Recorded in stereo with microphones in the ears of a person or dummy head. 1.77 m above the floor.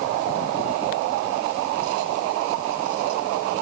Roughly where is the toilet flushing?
I don't hear a toilet flushing.